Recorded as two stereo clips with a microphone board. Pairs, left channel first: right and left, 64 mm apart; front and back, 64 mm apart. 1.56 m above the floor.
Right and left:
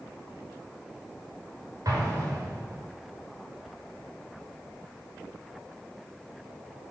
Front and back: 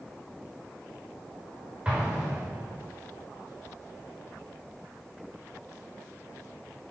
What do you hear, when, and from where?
1.9 s an explosion: 110° left, 5 m